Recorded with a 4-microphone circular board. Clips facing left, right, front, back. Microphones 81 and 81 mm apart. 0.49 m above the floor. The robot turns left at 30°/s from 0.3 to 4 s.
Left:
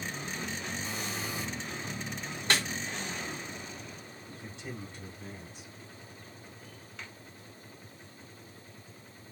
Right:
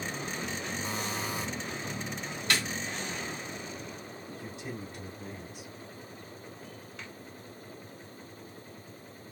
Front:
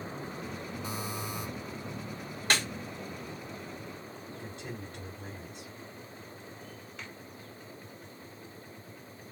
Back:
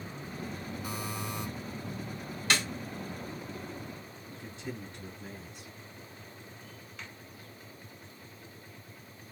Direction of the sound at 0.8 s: 55° right.